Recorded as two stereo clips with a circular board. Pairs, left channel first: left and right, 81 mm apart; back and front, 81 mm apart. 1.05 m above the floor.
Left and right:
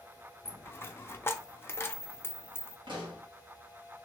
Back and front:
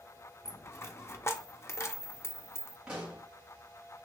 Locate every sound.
0.5 s a dropped coin: 140° left, 0.5 m
2.9 s a pop: 75° right, 1.4 m